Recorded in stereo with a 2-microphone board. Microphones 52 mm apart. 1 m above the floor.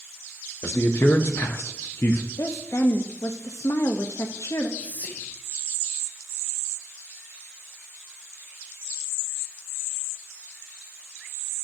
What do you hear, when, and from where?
0.6 s a man speaking: 60° left (ahead or behind), 0.9 m
2.4 s a woman speaking: 75° left (ahead or behind), 0.9 m
4.8 s whispering: 35° left (ahead or behind), 1.0 m